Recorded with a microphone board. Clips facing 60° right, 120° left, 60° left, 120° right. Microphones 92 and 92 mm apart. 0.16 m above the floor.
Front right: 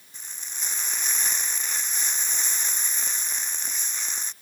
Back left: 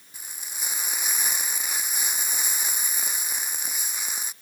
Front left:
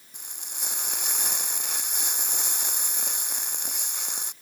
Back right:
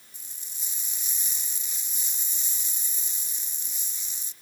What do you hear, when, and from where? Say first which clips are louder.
0.1 s frying: back left 1 dB, front left 12 dB; 40° left